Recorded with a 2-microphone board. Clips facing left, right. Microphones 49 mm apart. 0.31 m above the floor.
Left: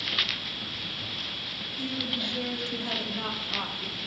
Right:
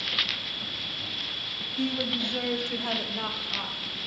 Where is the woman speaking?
60° right (ahead or behind), 2.5 m; by 4.1 s 35° left (ahead or behind), 1.7 m.